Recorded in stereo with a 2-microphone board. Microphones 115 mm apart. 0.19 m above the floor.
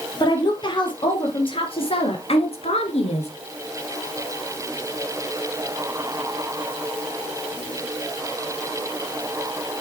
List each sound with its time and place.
0.2 s a woman speaking: 40° left (ahead or behind), 4.5 m; by 3.3 s 65° left (ahead or behind), 3 m